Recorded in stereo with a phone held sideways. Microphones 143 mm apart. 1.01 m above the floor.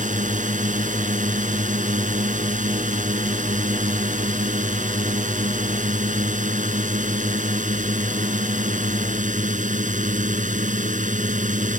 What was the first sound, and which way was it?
A drone, 65° right (ahead or behind).